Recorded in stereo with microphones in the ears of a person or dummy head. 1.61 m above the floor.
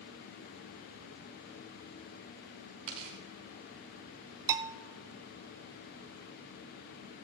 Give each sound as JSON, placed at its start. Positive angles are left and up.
{"t": 2.9, "sound": "tearing paper", "side_deg": -30, "distance_m": 1.5}
{"t": 4.5, "sound": "a bell", "side_deg": -20, "distance_m": 0.5}